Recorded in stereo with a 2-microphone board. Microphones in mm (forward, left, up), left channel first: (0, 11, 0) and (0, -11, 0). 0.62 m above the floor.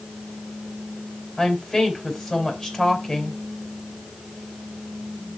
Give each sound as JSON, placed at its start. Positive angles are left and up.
{"t": 1.4, "sound": "a woman speaking", "side_deg": 30, "distance_m": 4.0}